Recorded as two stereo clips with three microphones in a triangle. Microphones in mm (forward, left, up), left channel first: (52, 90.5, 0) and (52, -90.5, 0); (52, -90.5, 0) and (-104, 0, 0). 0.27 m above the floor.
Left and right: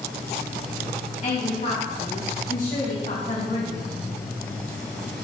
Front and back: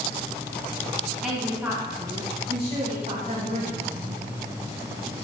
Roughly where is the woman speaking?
Ahead left.